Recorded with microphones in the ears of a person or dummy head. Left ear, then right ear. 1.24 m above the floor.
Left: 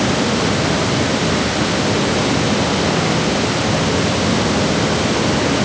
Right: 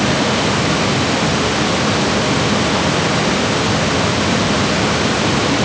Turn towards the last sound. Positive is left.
No sound to turn to.